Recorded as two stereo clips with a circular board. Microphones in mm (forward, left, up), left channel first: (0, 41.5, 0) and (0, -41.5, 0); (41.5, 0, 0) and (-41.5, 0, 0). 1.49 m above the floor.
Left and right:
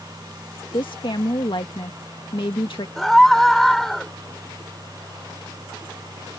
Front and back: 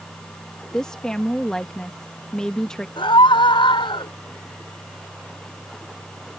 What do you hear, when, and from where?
0.7 s a woman speaking: 80° left
3.0 s a scream: 5° left